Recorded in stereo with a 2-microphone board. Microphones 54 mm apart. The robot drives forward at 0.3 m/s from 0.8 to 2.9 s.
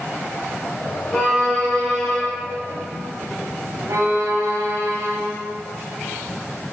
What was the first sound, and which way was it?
A violin, 10° left (ahead or behind).